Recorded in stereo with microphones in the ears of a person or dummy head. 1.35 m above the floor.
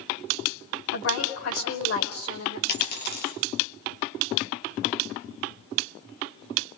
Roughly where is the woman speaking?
Left.